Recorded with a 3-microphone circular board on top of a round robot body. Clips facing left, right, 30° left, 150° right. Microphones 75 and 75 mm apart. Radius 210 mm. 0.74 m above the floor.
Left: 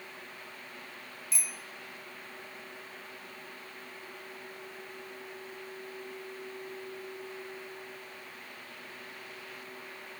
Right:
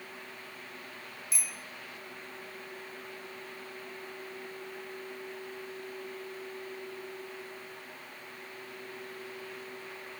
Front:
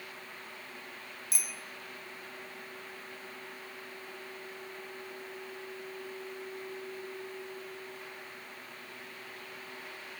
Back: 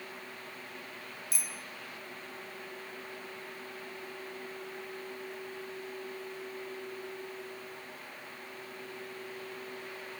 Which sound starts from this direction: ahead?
A bicycle bell, at 1.3 s.